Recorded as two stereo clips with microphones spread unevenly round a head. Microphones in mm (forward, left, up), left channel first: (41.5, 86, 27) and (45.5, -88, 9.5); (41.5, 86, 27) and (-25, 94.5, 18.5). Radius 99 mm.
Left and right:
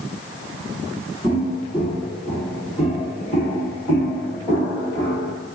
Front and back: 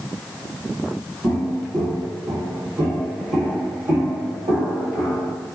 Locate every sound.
1.2 s footsteps: 165° right, 1.4 m; by 5.3 s 165° left, 3 m